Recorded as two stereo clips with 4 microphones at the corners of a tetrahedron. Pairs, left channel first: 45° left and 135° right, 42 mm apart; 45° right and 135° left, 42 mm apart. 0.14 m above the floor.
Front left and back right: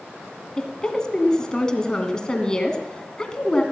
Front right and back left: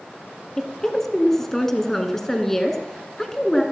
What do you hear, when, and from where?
0.6 s a woman speaking: 20° left, 1.6 m